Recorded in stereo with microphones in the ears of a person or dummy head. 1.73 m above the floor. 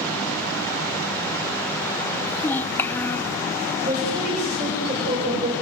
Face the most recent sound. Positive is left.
turn(degrees=-30)  # may be behind; listen again after turning